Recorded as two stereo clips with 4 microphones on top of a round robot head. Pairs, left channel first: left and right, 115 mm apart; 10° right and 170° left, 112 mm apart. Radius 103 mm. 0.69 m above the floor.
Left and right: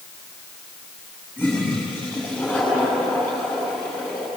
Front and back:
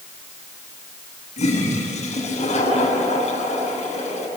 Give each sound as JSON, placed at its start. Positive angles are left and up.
{"t": 1.4, "sound": "a toilet flushing", "azimuth_deg": 10, "distance_m": 6.5}